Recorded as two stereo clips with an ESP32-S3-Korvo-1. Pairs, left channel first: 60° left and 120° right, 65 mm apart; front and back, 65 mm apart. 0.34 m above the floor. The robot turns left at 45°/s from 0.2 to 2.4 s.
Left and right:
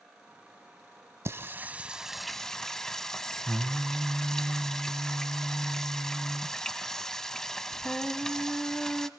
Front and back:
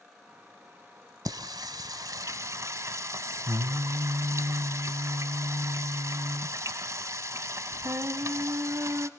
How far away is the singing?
About 0.7 m.